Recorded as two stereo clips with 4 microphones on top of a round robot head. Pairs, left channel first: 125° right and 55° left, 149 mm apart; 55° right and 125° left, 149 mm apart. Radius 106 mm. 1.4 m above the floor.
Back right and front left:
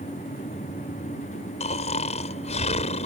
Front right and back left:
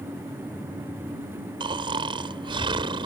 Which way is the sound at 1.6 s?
175° right.